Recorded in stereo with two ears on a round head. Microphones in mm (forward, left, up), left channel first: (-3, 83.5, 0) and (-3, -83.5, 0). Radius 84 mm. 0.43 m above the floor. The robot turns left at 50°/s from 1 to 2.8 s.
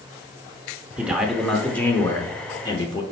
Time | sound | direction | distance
1.0 | a man speaking | 5° right (ahead or behind) | 0.9 m